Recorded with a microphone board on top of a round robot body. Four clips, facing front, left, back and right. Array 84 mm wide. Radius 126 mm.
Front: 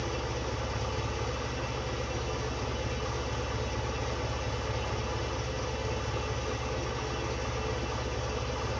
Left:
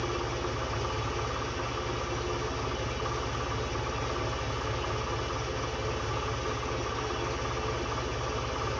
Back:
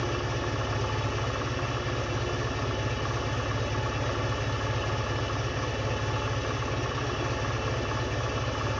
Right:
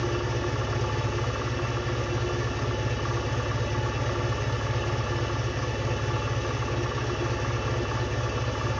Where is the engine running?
145° right, 1.1 m.